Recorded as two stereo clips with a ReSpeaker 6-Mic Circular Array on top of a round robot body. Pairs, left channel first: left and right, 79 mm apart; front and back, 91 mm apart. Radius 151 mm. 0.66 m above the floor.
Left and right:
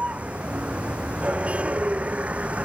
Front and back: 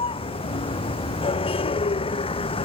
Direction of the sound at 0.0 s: 15° right.